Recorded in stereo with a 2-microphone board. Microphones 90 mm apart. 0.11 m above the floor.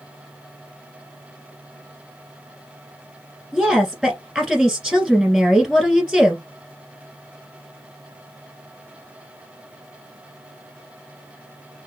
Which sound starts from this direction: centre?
A woman speaking, at 3.5 s.